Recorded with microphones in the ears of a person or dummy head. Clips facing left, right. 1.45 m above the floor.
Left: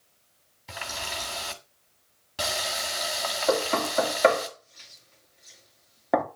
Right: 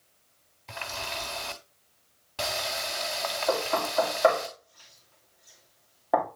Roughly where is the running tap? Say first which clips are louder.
Even; centre.